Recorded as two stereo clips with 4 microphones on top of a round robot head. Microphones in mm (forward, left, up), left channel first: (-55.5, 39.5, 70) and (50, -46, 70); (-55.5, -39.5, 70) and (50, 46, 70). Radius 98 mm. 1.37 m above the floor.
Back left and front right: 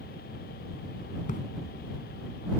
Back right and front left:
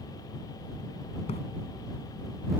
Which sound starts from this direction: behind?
A splash, at 1.3 s.